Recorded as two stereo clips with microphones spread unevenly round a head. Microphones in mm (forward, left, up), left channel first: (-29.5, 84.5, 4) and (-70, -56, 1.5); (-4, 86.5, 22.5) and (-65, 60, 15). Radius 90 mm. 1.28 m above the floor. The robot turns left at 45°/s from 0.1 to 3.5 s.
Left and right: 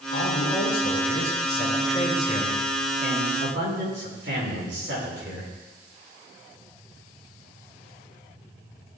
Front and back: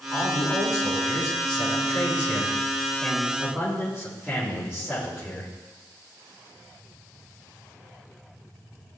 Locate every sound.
0.1 s a man speaking: 80° left, 5.5 m; by 5.5 s 70° right, 5.5 m